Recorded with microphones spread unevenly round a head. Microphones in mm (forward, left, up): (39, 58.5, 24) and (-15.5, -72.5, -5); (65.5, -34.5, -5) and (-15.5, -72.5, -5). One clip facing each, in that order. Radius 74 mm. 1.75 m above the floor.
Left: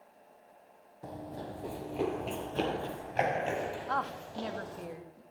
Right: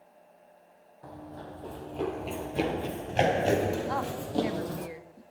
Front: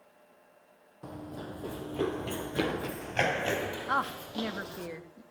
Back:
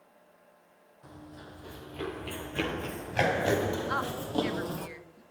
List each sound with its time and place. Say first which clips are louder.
1.0 s running footsteps: left 2 dB, front 7 dB; 15° left, 3 m; by 4.9 s 135° right, 3 m
3.9 s a woman speaking: right 4 dB, front 1 dB; 35° right, 2.5 m